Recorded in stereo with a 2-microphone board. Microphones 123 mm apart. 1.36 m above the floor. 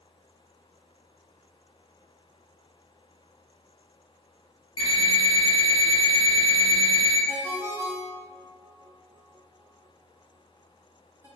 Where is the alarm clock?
40° left (ahead or behind), 1.2 m.